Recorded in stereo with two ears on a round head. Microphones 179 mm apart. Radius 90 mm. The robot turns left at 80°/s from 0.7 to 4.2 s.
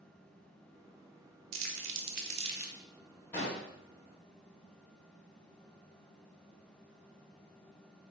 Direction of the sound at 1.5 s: 70° right (ahead or behind).